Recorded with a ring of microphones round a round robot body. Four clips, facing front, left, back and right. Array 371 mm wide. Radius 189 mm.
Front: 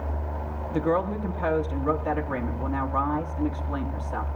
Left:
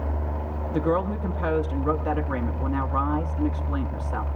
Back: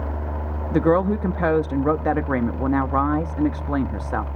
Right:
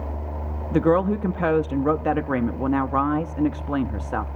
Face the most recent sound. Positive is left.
turn(degrees=-145)